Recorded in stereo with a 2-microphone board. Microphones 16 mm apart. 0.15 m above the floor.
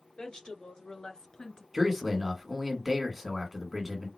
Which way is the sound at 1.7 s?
15° right (ahead or behind).